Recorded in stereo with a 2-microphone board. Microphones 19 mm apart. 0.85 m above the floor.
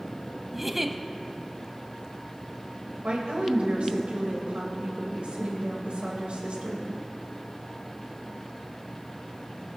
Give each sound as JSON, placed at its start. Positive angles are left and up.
{"t": 0.5, "sound": "a giggle", "side_deg": -10, "distance_m": 0.7}
{"t": 3.0, "sound": "a woman speaking", "side_deg": -80, "distance_m": 4.0}